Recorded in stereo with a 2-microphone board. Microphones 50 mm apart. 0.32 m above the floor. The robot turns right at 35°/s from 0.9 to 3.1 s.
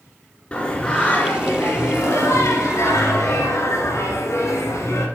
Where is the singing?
20° left, 1.8 m; by 5.1 s 95° left, 1.8 m.